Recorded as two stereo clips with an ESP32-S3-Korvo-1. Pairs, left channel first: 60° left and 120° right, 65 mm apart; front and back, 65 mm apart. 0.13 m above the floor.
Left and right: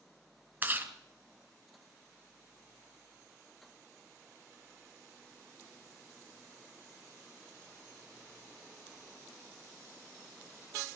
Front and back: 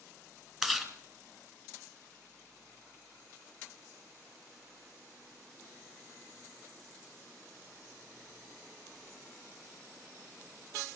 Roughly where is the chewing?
Right.